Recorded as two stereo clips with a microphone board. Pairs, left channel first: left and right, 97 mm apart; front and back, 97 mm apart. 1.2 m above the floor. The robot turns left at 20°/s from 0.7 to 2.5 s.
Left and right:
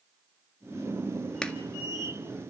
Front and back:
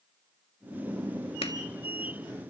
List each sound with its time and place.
1.4 s a clap: 10° left, 1.7 m; by 1.5 s 5° left, 1.7 m